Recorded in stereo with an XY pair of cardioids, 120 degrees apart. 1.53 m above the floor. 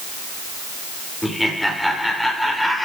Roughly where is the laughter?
Ahead.